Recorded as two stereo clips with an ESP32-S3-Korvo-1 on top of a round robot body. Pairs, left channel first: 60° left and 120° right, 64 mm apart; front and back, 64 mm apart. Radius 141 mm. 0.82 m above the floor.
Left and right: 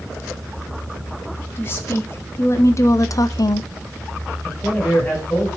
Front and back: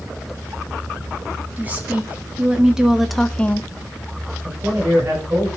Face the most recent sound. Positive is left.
turn(degrees=130)